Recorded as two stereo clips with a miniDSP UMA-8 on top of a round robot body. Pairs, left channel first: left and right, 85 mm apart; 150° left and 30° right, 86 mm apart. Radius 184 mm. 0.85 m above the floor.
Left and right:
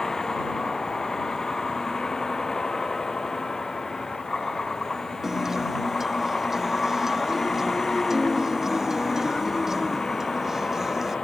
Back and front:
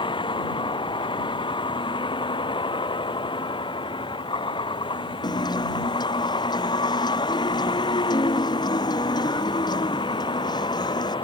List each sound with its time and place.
0.0 s a vehicle: 175° left
5.2 s a guitar: 175° right